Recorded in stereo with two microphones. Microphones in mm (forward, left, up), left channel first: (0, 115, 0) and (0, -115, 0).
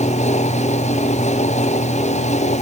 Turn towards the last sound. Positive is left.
No sound to turn to.